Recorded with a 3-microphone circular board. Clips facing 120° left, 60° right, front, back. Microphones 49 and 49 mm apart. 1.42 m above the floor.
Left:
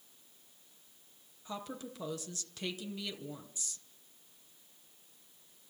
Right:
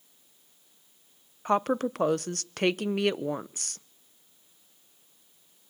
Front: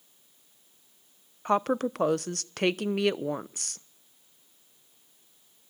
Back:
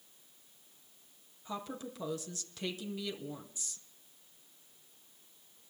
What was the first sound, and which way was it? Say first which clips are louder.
A woman speaking: right 17 dB, front 16 dB; 30° right.